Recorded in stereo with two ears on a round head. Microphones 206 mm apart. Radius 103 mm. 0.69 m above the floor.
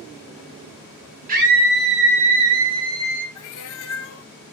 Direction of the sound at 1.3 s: 35° right (ahead or behind).